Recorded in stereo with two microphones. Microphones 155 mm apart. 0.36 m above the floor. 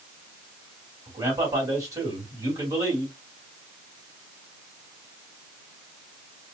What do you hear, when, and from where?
1.1 s a man speaking: 20° right (ahead or behind), 1.9 m